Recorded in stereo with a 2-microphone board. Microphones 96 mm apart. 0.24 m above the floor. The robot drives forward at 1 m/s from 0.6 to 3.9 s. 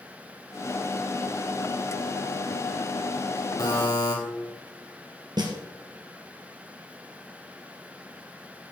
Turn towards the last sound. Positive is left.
turn(degrees=-50)  # may be behind; listen again after turning